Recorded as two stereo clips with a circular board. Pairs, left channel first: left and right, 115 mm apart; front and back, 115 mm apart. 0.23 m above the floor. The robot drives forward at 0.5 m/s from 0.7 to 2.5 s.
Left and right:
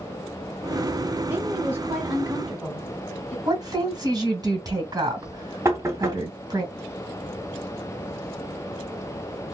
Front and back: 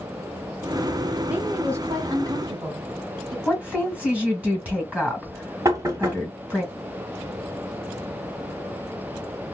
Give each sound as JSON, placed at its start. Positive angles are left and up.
{"t": 1.3, "sound": "a woman speaking", "azimuth_deg": -125, "distance_m": 1.0}
{"t": 3.5, "sound": "a woman speaking", "azimuth_deg": -110, "distance_m": 1.5}
{"t": 5.7, "sound": "knocking", "azimuth_deg": -140, "distance_m": 0.8}